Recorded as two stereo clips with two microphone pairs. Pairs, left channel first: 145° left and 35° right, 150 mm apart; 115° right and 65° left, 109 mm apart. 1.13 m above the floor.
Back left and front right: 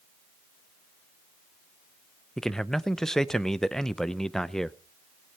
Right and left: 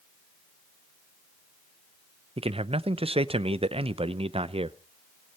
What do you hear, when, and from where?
2.4 s a man speaking: 60° left, 0.6 m